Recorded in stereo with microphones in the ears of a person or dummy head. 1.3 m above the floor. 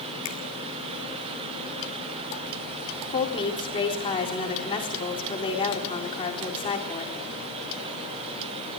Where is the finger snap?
80° left, 3.5 m.